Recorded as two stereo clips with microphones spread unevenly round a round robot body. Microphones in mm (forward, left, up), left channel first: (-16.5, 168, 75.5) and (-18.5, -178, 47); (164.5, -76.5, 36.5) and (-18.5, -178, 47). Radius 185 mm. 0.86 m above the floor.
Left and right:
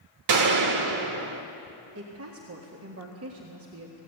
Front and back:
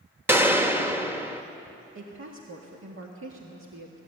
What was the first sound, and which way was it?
A gunshot, 70° right.